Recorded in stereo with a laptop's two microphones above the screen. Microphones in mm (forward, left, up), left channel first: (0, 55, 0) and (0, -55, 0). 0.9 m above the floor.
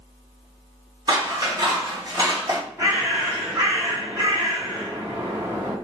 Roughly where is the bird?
Right.